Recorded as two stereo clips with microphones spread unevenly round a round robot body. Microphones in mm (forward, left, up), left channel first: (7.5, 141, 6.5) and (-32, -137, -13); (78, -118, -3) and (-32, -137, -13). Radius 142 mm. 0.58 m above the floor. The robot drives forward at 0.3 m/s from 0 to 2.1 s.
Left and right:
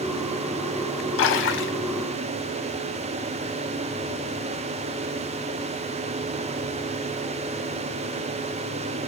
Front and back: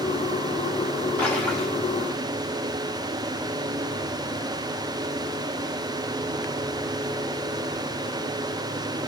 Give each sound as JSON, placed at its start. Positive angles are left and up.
{"t": 1.2, "sound": "a splash", "azimuth_deg": 90, "distance_m": 0.7}